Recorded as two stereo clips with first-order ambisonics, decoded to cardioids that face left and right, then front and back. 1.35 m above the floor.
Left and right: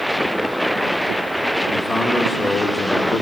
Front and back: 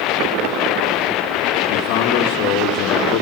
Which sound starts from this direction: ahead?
A man speaking, at 1.7 s.